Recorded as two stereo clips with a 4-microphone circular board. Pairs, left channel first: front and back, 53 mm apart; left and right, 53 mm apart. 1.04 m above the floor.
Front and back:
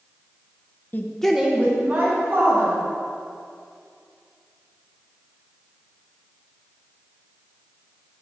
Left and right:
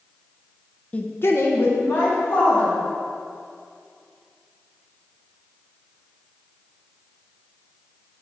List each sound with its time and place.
0.9 s a woman speaking: 35° left, 0.6 m; by 2.8 s 130° left, 2 m